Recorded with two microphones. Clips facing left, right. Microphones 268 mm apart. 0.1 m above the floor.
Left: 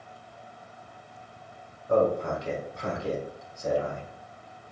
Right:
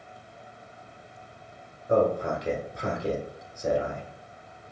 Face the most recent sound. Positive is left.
turn(degrees=-20)  # may be behind; listen again after turning